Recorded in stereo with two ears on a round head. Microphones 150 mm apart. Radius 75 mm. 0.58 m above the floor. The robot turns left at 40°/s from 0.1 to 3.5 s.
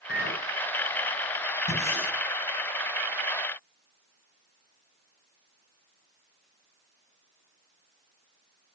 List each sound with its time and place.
0.1 s a clink: 75° left (ahead or behind), 4.5 m; by 0.5 s 85° left, 4.5 m
1.7 s breathing: 50° left (ahead or behind), 6 m; by 2.1 s 30° left (ahead or behind), 6 m